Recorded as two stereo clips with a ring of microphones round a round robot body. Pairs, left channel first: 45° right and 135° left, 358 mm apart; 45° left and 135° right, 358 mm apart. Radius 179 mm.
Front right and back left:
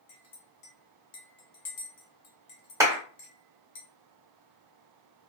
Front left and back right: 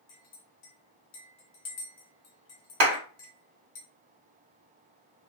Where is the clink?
15° right, 1.1 m.